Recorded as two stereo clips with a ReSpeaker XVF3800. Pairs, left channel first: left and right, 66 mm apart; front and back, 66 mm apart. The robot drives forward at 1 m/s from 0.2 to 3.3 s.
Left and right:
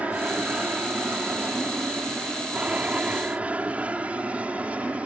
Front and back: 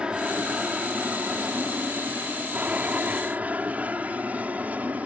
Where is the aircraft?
125° right; by 5.0 s 140° right.